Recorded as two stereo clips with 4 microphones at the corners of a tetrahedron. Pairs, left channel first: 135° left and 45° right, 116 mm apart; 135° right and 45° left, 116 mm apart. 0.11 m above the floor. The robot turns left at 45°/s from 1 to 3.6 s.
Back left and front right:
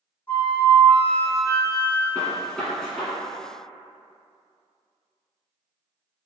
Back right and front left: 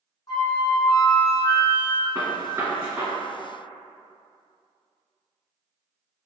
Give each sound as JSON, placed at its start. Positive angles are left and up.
{"t": 0.3, "sound": "a flute", "azimuth_deg": -160, "distance_m": 0.9}
{"t": 2.1, "sound": "a gunshot", "azimuth_deg": 95, "distance_m": 1.8}